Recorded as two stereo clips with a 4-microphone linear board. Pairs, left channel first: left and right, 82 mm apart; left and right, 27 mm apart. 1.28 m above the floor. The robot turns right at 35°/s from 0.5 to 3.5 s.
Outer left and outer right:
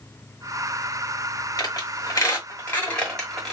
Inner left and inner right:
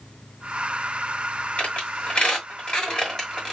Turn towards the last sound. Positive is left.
turn(degrees=5)  # may be behind; listen again after turning